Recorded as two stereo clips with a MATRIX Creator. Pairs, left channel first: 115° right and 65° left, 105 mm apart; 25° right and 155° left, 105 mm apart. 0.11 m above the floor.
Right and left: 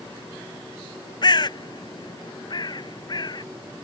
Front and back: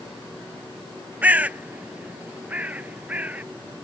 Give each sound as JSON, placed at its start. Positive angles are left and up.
{"t": 1.2, "sound": "a bird", "azimuth_deg": -130}